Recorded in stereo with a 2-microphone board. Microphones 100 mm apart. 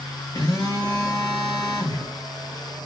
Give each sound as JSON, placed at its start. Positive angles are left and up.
{"t": 0.3, "sound": "a phone buzzing", "side_deg": 40, "distance_m": 1.1}